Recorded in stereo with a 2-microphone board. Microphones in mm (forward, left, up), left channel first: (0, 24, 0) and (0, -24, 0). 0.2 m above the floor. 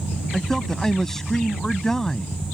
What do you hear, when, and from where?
0.3 s a man speaking: 10° left (ahead or behind)